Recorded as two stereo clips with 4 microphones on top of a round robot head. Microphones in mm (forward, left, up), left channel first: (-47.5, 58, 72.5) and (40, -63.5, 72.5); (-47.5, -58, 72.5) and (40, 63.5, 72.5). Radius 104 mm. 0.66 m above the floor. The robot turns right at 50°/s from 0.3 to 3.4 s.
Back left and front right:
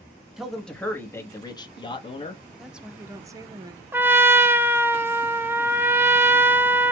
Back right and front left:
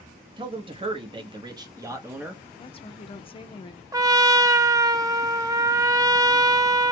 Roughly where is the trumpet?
Ahead.